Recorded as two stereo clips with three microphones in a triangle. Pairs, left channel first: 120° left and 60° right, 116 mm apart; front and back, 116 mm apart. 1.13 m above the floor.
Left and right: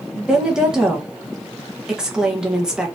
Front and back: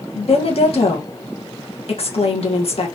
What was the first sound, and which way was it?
A woman speaking, 25° left.